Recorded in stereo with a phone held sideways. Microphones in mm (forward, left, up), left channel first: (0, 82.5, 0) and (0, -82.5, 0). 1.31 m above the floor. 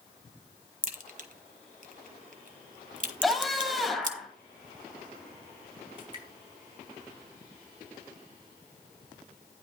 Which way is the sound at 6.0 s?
35° right (ahead or behind).